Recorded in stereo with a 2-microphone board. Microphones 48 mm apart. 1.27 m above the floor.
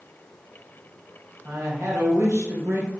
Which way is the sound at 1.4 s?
70° right (ahead or behind).